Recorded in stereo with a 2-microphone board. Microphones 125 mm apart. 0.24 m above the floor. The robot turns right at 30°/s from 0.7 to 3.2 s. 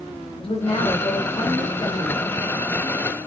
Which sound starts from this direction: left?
A woman speaking, at 0.4 s.